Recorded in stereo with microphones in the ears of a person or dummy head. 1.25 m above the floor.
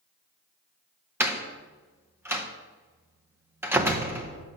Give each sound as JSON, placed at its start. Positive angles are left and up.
{"t": 1.2, "sound": "a door slam", "side_deg": -10, "distance_m": 0.6}